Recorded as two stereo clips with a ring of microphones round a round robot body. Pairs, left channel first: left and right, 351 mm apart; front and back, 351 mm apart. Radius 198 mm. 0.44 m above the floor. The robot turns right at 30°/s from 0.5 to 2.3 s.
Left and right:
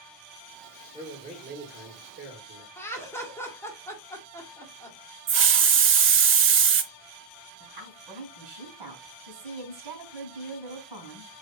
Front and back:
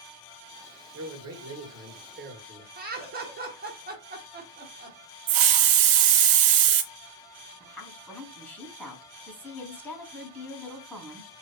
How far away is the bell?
No bell in this recording.